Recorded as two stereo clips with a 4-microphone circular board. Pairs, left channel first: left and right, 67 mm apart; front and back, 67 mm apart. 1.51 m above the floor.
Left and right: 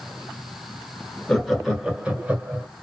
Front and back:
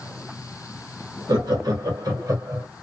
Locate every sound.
1.3 s laughter: 170° left, 1.2 m; by 2.7 s 145° right, 1.2 m